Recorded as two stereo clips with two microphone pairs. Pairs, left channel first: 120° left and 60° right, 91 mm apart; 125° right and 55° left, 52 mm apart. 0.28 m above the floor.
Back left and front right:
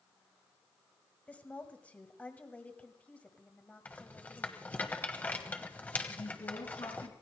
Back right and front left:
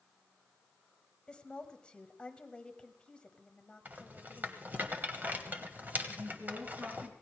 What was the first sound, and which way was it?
A woman speaking, 175° right.